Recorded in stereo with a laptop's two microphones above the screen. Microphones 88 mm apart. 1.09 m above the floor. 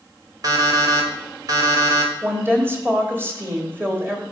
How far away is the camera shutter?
I don't hear a camera shutter.